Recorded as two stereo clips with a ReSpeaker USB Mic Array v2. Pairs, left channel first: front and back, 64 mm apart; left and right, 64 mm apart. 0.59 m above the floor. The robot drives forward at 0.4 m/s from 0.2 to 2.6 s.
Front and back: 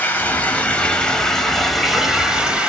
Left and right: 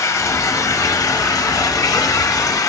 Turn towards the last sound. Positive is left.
turn(degrees=105)